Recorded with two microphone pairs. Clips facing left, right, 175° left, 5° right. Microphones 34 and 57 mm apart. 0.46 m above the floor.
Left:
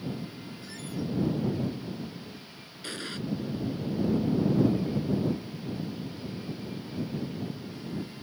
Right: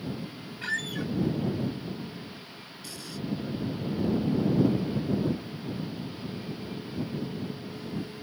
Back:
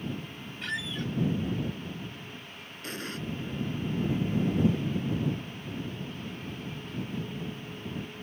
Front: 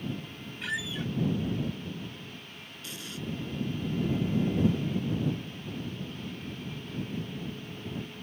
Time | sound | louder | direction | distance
0.6 | a squeak | right 6 dB, even | 90° right | ?
2.8 | an explosion | left 5 dB, back 5 dB | 130° left | ?